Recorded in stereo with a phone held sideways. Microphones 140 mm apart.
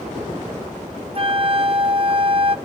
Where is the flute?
40° right (ahead or behind), 0.5 m.